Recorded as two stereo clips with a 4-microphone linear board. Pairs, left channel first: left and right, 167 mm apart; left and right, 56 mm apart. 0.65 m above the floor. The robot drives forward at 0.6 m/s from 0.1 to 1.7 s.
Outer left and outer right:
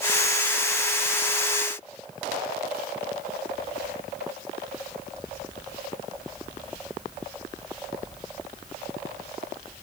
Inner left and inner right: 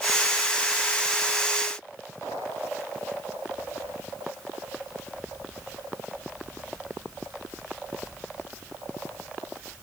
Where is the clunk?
I don't hear a clunk.